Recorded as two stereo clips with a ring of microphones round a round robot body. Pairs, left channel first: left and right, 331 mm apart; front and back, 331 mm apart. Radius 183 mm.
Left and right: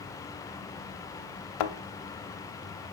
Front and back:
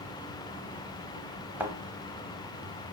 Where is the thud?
95° left, 0.8 m.